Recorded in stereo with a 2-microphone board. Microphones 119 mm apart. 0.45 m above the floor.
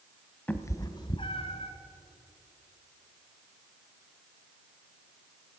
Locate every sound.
0.5 s a cat meowing: 15° left (ahead or behind), 0.7 m; by 1.7 s 60° left (ahead or behind), 1.3 m